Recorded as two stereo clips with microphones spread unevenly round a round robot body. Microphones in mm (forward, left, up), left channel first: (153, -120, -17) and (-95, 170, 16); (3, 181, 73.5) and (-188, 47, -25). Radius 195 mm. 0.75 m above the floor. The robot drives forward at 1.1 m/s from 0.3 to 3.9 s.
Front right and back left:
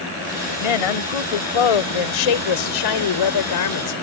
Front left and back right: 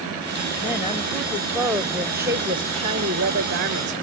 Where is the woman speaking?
45° right; by 3.9 s 100° right.